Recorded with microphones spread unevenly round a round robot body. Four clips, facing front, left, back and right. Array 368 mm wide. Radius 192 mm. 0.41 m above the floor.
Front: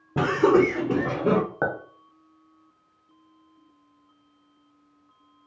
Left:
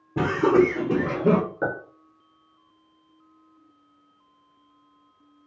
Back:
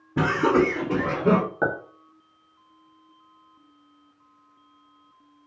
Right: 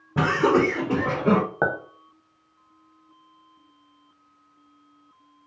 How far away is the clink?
About 0.8 m.